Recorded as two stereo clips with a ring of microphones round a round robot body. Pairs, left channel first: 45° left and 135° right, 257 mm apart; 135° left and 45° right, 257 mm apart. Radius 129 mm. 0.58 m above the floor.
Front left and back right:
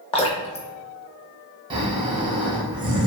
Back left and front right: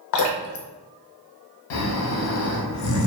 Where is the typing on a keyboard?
I don't hear typing on a keyboard.